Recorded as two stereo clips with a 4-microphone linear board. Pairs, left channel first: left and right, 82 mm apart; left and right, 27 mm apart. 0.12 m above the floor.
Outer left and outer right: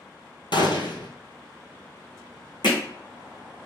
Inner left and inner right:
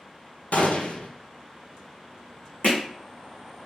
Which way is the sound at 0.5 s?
75° left (ahead or behind).